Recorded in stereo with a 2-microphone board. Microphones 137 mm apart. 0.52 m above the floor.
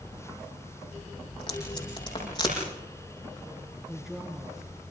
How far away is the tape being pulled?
About 9 m.